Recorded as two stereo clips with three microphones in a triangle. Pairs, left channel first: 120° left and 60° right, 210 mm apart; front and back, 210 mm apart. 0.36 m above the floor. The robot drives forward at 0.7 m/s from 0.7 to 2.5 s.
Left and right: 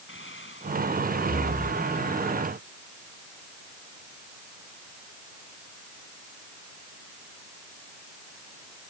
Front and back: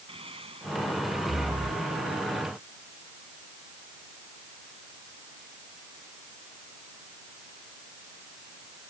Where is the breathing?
120° left; by 1.9 s 130° left.